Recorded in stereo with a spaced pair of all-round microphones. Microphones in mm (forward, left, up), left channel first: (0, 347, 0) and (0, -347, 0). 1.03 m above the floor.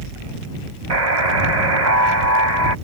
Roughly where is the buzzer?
Right.